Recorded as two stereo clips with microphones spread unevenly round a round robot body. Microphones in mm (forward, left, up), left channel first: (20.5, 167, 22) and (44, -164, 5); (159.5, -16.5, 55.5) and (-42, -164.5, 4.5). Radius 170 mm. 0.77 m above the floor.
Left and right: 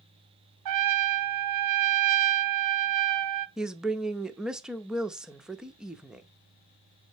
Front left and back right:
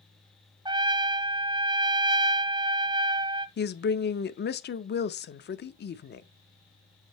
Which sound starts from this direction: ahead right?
A trumpet, at 0.7 s.